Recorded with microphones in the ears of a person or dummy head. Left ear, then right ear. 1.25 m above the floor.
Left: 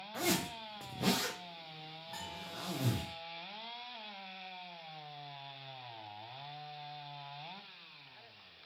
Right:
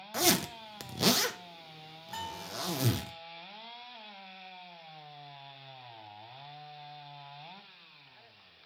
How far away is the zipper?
About 0.5 m.